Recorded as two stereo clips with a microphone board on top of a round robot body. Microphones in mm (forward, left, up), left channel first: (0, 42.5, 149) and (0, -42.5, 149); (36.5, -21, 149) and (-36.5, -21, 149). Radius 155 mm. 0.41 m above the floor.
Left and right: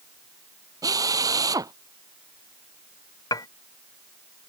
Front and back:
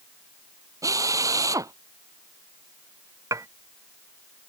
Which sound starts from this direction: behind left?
Dishes clattering, at 3.3 s.